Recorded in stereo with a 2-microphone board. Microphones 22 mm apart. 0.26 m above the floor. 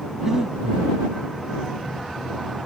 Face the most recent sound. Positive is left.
turn(degrees=-20)  # may be behind; listen again after turning